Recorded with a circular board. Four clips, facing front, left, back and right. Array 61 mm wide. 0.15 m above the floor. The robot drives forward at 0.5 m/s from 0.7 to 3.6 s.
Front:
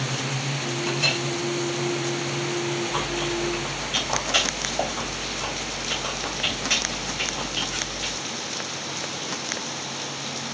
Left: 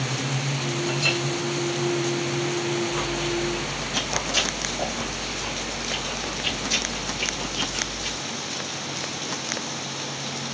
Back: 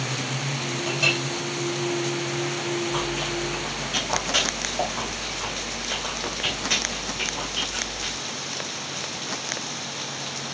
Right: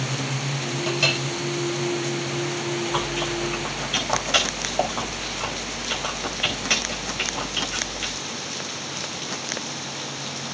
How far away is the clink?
About 4.5 m.